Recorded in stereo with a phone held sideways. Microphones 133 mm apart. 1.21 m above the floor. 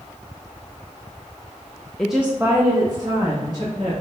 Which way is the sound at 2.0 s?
10° left (ahead or behind).